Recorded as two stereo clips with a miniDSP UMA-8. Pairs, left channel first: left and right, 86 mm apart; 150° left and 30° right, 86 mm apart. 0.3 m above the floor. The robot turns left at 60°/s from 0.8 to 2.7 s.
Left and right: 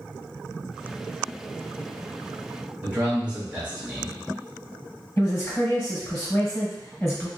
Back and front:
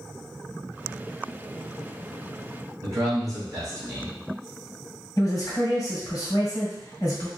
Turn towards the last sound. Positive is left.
turn(degrees=135)